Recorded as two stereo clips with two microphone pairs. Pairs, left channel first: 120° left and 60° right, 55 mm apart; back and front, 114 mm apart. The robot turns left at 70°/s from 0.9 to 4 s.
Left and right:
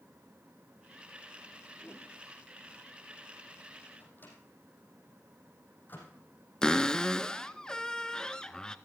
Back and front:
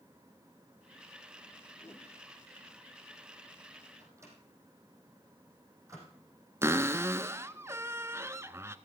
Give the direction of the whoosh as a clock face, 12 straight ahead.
6 o'clock.